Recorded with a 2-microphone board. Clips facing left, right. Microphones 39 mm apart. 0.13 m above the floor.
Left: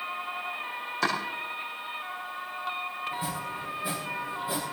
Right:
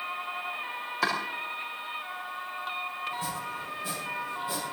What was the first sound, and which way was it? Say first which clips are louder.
Chopping: even; 5° right (ahead or behind).